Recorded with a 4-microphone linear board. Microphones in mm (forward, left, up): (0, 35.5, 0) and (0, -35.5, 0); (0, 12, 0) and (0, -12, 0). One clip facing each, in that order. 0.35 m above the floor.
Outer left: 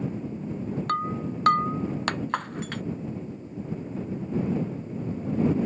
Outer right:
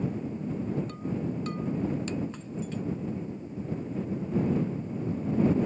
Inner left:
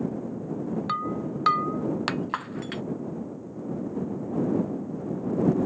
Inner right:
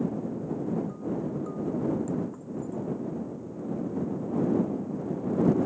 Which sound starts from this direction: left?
Breaking glass, at 0.9 s.